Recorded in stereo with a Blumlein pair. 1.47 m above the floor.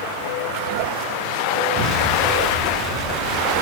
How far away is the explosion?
About 1.8 m.